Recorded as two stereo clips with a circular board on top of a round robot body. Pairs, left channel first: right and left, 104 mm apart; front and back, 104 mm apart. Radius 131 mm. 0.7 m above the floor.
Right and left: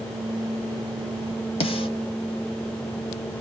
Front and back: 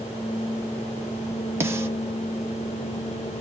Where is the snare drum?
115° right, 1.6 m.